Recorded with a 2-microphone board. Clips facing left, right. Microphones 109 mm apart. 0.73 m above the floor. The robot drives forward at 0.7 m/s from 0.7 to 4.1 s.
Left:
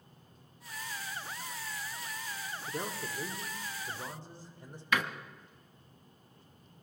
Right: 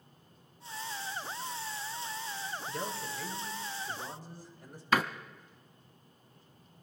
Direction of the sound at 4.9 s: 35° right (ahead or behind).